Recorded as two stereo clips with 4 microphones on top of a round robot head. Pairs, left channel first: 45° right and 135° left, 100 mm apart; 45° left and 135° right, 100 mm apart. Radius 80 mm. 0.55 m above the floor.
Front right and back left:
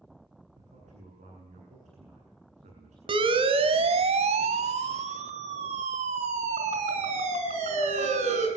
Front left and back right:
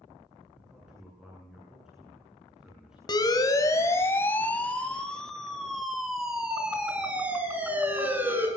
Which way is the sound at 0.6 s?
140° left.